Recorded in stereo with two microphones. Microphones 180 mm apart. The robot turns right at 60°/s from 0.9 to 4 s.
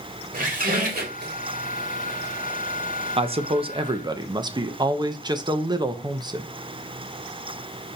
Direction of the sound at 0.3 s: 50° right (ahead or behind).